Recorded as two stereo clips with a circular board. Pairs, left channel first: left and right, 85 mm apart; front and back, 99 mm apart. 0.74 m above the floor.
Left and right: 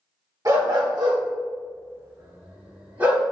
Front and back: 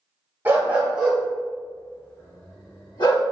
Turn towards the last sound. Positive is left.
turn(degrees=-20)